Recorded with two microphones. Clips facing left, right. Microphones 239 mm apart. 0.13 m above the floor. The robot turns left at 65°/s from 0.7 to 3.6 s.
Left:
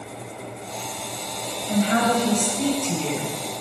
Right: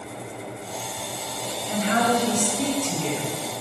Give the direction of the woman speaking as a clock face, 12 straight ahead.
10 o'clock.